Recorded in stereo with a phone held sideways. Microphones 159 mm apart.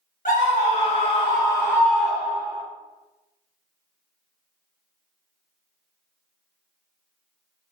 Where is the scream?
55° left (ahead or behind), 1.2 m; by 2.6 s 20° right (ahead or behind), 0.9 m.